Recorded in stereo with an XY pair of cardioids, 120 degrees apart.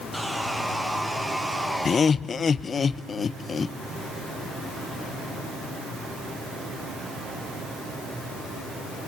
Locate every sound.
0.1 s sawing: 5° right, 1.7 m
1.9 s laughter: 35° left, 0.5 m